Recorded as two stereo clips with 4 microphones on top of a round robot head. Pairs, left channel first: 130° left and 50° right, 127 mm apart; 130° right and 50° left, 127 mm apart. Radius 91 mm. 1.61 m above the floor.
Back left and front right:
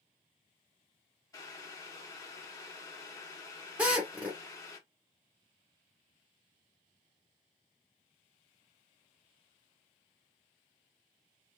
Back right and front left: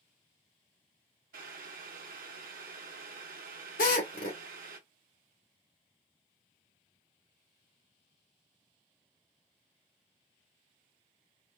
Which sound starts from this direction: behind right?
A drill, at 3.8 s.